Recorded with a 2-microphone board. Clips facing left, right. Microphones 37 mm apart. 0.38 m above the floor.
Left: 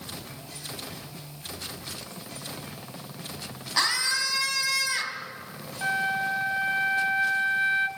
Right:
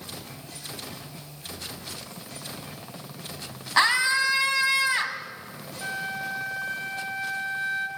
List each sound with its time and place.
3.8 s a scream: 25° right (ahead or behind), 2 m
5.8 s a flute: 25° left (ahead or behind), 1.2 m